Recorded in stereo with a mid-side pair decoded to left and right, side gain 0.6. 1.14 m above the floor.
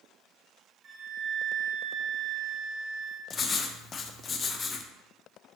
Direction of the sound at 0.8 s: 50° right.